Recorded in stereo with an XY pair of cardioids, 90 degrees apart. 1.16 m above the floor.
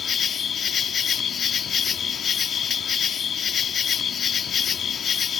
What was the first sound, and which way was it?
An insect, 60° left.